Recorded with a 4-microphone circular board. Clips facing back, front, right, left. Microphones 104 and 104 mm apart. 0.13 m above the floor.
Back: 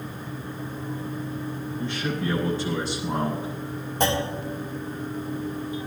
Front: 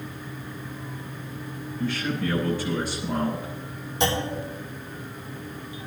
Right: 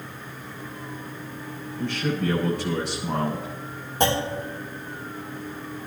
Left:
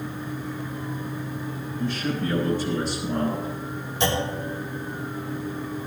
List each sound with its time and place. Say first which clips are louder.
1.8 s a man speaking: front 2 dB, right 1 dB; 115° right, 7.5 m
4.0 s a clunk: back 1 dB, right 2 dB; 135° right, 6 m